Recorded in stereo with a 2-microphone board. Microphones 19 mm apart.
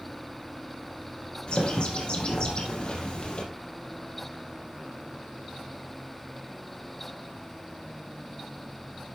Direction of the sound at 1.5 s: 55° left (ahead or behind).